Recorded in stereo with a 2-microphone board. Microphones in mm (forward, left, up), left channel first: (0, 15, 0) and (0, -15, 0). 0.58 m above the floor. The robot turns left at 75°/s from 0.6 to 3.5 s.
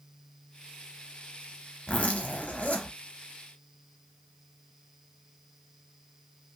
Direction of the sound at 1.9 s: 140° left.